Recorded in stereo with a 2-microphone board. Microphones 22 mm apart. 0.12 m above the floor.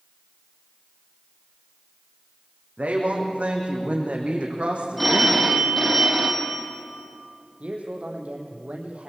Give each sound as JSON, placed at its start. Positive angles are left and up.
{"t": 2.8, "sound": "a woman speaking", "side_deg": -70, "distance_m": 7.0}
{"t": 5.0, "sound": "a phone ringing", "side_deg": 10, "distance_m": 4.0}
{"t": 7.6, "sound": "a man speaking", "side_deg": -65, "distance_m": 5.0}